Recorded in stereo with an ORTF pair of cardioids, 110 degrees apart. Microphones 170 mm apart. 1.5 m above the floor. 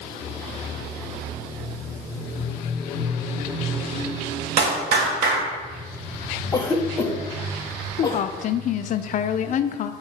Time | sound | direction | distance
4.6 | a clap | 70° right | 1.9 m
6.5 | a cough | 20° left | 1.0 m
8.0 | a woman speaking | 50° left | 0.6 m